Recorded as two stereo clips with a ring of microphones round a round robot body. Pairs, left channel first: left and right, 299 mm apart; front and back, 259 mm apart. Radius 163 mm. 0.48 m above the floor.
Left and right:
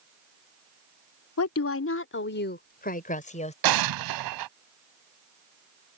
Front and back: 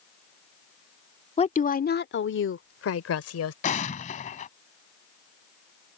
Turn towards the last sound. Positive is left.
turn(degrees=-70)